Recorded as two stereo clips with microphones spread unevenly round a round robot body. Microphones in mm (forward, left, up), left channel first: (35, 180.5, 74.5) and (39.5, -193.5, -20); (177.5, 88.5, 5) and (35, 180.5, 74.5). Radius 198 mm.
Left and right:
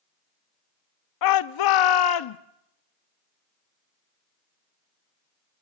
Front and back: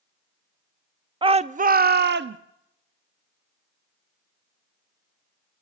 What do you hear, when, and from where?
1.2 s a shout: 65° left, 0.7 m; by 2.4 s 125° left, 0.9 m